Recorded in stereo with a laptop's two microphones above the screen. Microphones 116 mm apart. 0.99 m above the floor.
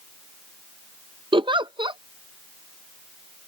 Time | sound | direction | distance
1.3 | a giggle | 45° right (ahead or behind) | ?